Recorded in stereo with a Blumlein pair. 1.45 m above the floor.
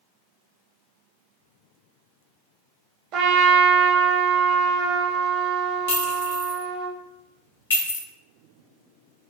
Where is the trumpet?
35° right, 0.9 m.